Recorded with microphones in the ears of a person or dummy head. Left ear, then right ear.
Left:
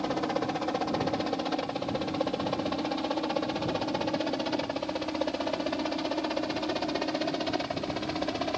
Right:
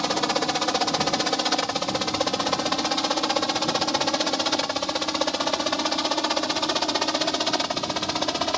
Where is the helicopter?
65° right (ahead or behind); by 8.6 s 40° right (ahead or behind).